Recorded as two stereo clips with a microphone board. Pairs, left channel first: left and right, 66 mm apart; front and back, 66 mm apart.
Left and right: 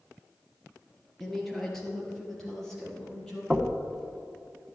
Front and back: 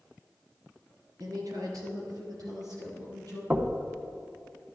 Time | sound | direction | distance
1.2 | a woman speaking | 175° left | 2.5 m
3.5 | knocking | 165° right | 0.8 m